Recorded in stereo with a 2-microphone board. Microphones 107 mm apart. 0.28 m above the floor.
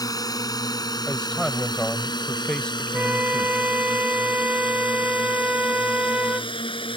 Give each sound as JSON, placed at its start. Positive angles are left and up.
{"t": 0.0, "sound": "a drone", "side_deg": 35}
{"t": 1.1, "sound": "a man speaking", "side_deg": 10}
{"t": 2.9, "sound": "a flute", "side_deg": -15}